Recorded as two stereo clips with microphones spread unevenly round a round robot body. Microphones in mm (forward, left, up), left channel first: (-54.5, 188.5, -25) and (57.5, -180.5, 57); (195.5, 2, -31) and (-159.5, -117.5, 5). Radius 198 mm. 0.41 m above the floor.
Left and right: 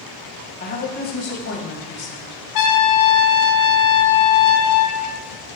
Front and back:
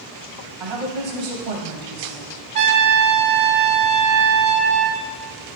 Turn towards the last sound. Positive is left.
turn(degrees=150)